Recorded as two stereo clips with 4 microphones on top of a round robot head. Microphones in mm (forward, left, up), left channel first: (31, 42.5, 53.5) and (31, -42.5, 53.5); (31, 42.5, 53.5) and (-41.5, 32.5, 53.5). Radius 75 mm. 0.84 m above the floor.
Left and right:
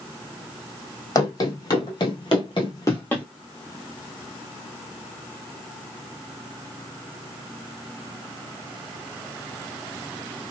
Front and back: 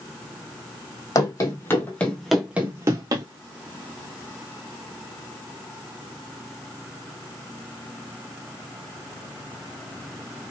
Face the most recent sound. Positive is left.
turn(degrees=170)